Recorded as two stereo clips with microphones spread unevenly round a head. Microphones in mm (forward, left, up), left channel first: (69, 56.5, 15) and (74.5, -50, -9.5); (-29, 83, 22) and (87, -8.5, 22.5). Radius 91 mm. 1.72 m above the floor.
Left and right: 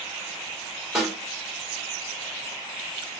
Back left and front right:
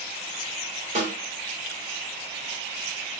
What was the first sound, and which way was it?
A snare drum, straight ahead.